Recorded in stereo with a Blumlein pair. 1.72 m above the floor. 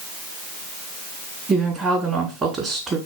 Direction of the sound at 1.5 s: 25° right.